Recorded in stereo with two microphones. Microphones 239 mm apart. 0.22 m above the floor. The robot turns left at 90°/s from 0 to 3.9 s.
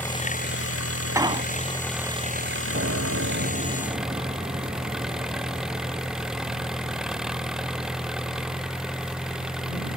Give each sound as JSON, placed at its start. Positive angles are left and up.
{"t": 0.0, "sound": "an engine running", "azimuth_deg": 175}
{"t": 1.1, "sound": "an explosion", "side_deg": -15}
{"t": 2.7, "sound": "a piano", "azimuth_deg": -45}